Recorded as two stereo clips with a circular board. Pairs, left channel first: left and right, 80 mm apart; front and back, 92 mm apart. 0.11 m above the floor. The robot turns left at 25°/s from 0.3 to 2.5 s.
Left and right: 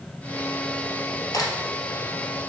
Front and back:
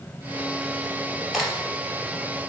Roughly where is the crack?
Left.